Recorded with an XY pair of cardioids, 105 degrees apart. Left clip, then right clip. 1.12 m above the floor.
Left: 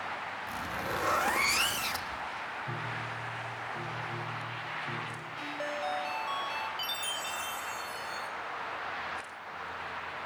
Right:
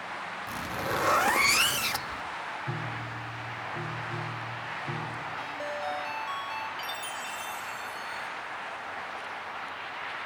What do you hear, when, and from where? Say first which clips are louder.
0.5 s a zipper: right 4 dB; 25° right, 1.5 m
2.7 s a piano: right 1 dB; 25° right, 4 m
5.4 s a ringtone: left 2 dB; 10° left, 4.5 m
6.8 s a chime: left 1 dB; 25° left, 5 m